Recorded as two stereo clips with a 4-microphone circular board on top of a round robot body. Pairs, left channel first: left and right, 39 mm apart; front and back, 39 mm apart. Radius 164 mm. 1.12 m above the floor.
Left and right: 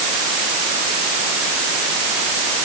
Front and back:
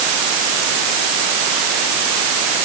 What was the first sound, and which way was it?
Only background noise.